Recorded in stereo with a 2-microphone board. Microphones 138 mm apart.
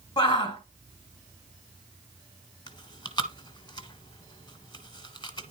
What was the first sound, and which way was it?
A shout, 30° left (ahead or behind).